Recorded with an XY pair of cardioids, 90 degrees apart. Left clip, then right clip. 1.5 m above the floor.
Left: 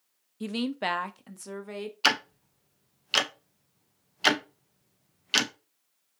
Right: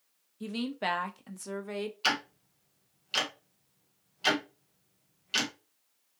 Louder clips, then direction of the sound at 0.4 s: Left 3 dB; 55° left.